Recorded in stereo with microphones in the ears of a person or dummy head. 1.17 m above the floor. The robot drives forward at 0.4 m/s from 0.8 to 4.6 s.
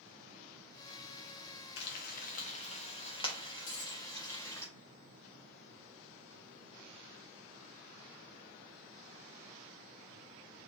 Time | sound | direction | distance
1.8 | frying | 60° left (ahead or behind) | 0.6 m
3.7 | a dropped coin | 50° left (ahead or behind) | 1.4 m